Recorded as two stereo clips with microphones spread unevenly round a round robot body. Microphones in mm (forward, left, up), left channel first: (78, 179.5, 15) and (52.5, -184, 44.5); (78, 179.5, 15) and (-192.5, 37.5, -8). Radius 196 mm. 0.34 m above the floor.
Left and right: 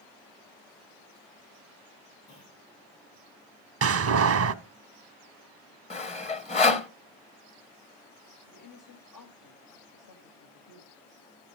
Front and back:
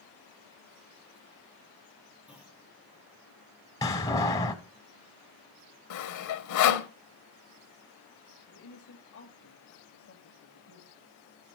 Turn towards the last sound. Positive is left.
turn(degrees=65)